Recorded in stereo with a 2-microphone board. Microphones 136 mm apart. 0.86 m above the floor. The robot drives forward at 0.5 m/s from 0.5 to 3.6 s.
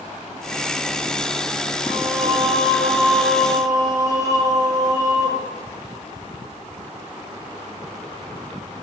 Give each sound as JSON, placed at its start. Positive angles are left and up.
{"t": 1.9, "sound": "singing", "side_deg": -40, "distance_m": 1.5}